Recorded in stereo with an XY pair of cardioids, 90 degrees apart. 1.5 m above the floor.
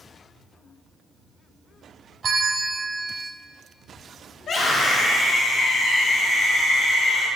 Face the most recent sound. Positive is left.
turn(degrees=65)